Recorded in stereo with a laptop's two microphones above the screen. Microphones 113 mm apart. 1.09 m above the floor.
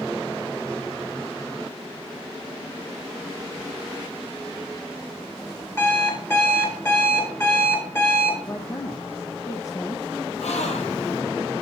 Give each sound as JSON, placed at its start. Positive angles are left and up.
{"t": 5.8, "sound": "an alarm clock", "side_deg": 25, "distance_m": 2.0}
{"t": 8.5, "sound": "a woman speaking", "side_deg": 30, "distance_m": 0.5}
{"t": 10.4, "sound": "a gasp", "side_deg": 80, "distance_m": 1.1}